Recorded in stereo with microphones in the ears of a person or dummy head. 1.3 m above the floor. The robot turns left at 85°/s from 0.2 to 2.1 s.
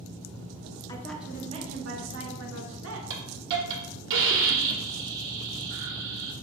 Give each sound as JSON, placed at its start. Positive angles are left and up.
{"t": 0.9, "sound": "a woman speaking", "azimuth_deg": 20, "distance_m": 1.0}
{"t": 3.1, "sound": "a hiss", "side_deg": -65, "distance_m": 1.2}